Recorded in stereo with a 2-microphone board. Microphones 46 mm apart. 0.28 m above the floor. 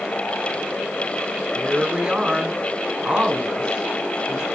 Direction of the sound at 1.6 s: 20° right (ahead or behind).